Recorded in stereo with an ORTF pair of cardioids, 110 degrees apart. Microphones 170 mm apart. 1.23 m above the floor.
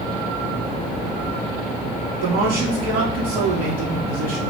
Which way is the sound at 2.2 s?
65° right.